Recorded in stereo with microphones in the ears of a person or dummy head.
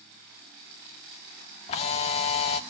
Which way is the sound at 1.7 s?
30° left (ahead or behind).